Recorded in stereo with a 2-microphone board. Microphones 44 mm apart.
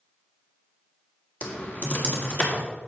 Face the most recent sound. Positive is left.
turn(degrees=35)  # may be behind; listen again after turning